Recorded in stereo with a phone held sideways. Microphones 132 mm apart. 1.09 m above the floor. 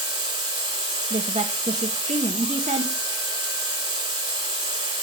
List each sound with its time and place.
0.0 s a machine running: 40° right (ahead or behind), 2.5 m
1.1 s a woman speaking: 65° right (ahead or behind), 1.2 m